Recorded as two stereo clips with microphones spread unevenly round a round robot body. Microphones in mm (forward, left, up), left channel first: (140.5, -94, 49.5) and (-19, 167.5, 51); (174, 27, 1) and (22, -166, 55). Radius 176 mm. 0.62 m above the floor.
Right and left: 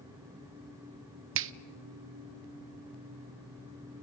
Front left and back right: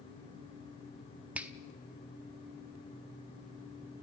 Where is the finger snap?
135° left, 0.7 m.